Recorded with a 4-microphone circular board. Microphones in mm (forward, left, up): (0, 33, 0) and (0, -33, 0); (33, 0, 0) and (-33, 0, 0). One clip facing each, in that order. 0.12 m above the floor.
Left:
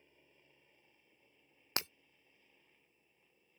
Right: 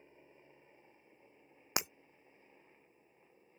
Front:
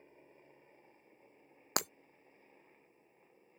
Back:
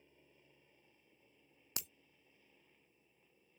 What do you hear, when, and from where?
0.0 s a helicopter: 40° right
1.8 s breaking glass: 15° right